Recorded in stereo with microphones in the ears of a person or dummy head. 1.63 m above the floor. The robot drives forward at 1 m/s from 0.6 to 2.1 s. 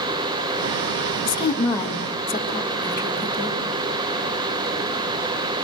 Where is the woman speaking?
20° left (ahead or behind), 1.4 m; by 3.6 s 10° left (ahead or behind), 2 m.